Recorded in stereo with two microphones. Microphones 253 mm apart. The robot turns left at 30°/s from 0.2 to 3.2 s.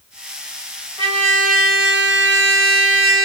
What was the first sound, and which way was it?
A trumpet, 25° right.